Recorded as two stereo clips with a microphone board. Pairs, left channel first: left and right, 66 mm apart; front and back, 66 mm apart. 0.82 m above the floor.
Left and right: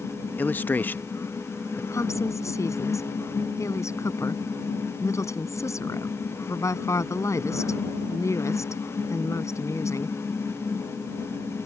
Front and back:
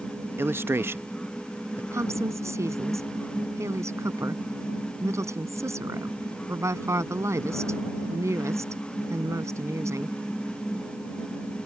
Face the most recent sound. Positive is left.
turn(degrees=135)